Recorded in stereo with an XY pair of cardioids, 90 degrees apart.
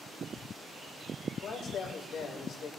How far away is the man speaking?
About 5.5 m.